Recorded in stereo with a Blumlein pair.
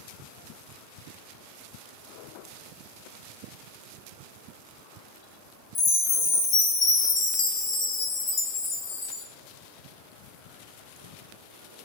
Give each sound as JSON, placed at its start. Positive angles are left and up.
{"t": 5.8, "sound": "a chime", "azimuth_deg": 25, "distance_m": 1.0}